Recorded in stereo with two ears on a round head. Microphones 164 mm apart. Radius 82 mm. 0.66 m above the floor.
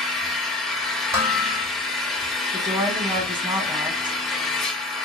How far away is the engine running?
About 1.3 m.